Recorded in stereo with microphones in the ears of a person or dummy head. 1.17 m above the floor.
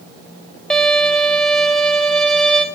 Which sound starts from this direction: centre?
A violin, at 0.7 s.